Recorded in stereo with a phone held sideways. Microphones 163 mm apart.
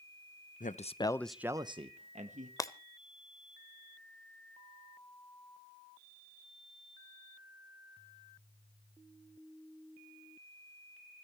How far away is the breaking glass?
About 0.8 m.